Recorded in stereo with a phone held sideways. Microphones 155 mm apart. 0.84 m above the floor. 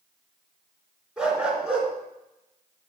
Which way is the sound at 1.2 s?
5° right (ahead or behind).